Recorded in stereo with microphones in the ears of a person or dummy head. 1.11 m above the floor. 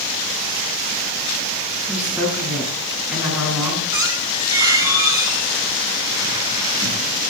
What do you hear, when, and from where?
1.9 s a woman speaking: 10° right (ahead or behind), 9.5 m
3.9 s a squeak: 15° right (ahead or behind), 4.5 m